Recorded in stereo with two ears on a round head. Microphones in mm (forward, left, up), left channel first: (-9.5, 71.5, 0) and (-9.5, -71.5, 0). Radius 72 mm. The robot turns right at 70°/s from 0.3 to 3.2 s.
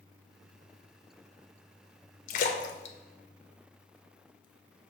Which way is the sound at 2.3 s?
50° left (ahead or behind).